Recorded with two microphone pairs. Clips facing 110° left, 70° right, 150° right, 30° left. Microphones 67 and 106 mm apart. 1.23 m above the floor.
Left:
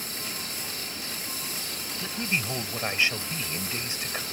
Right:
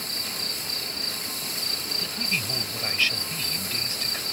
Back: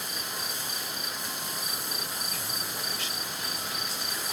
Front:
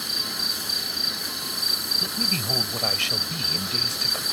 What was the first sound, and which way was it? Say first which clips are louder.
An insect: right 1 dB, front 2 dB; 25° left.